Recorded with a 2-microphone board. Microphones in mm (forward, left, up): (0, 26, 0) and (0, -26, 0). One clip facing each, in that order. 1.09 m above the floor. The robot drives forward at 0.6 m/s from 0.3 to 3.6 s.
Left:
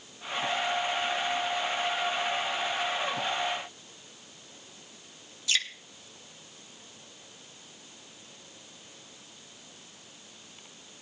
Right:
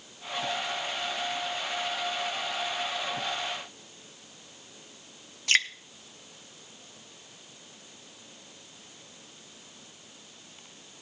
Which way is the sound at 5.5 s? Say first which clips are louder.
Right 6 dB; 50° right (ahead or behind).